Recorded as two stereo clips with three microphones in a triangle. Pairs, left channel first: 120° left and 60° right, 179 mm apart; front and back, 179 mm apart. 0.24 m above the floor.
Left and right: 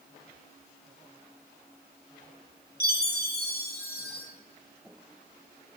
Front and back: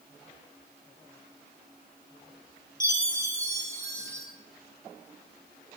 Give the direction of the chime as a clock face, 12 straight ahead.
8 o'clock.